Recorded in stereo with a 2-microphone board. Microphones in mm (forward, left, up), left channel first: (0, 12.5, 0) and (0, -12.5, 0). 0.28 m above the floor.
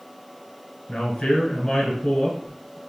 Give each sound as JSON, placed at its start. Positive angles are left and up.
{"t": 0.9, "sound": "a man speaking", "side_deg": 30, "distance_m": 1.5}